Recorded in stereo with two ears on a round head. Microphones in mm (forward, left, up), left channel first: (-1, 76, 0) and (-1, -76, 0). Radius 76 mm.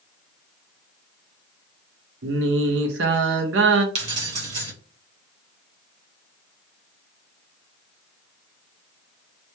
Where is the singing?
75° right (ahead or behind), 0.6 m.